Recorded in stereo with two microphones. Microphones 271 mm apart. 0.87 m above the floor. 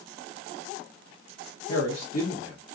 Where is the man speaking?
65° left (ahead or behind), 1.4 m.